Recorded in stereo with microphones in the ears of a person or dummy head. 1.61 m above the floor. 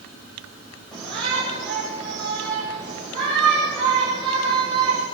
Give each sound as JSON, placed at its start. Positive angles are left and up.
{"t": 0.9, "sound": "a shout", "side_deg": 5, "distance_m": 8.0}